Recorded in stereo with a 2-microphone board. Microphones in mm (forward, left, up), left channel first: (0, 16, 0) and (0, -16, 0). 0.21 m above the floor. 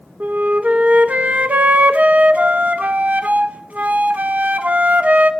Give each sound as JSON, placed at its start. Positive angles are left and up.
{"t": 0.2, "sound": "a flute", "side_deg": -50, "distance_m": 0.5}